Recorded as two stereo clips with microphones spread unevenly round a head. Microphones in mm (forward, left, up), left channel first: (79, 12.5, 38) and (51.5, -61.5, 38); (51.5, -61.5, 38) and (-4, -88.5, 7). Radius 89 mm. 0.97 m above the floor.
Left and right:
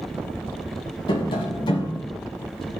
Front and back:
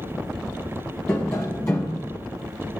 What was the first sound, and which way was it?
Tapping, 65° left.